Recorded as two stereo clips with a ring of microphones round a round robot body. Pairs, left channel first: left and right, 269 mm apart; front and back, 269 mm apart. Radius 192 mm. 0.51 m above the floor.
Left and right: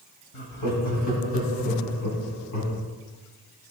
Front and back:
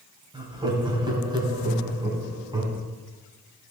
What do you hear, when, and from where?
0.3 s laughter: 105° left, 3 m